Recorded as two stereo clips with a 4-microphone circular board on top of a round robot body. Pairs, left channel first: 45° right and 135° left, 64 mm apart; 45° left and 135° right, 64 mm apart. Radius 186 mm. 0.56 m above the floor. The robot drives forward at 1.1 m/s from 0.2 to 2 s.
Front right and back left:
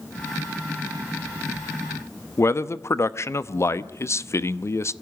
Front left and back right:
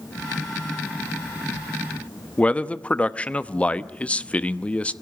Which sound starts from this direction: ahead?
A man speaking, at 2.4 s.